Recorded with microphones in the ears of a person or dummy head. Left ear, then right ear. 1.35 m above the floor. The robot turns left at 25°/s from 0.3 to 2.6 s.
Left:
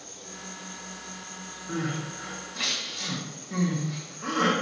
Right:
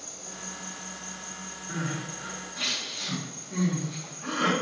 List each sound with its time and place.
0.0 s an insect: 100° right, 1.0 m; by 4.6 s 160° right, 1.0 m
1.7 s crying: 35° left (ahead or behind), 1.3 m; by 4.5 s 55° left (ahead or behind), 1.3 m